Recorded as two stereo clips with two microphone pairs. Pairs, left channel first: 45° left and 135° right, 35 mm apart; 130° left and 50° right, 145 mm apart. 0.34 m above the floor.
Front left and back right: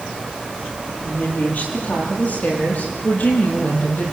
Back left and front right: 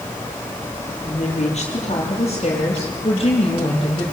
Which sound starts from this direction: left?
A woman speaking, at 1.0 s.